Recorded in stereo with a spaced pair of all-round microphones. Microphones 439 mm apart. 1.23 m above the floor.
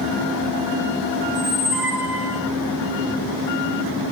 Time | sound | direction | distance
1.3 | a squeak | 5° right (ahead or behind) | 5 m